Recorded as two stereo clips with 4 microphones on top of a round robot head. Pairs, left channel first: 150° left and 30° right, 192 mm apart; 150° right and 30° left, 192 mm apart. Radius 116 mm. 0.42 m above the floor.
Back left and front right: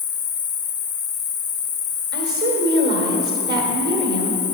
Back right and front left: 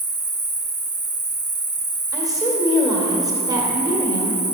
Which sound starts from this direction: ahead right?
A woman speaking, at 2.1 s.